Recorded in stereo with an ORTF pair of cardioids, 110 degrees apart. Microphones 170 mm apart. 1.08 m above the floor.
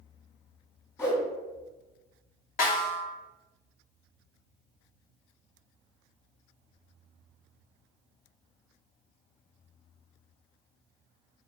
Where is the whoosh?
15° left, 1.3 m.